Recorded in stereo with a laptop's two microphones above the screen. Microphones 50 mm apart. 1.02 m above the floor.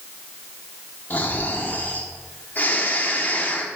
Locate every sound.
1.1 s snoring: 40° left (ahead or behind), 1.4 m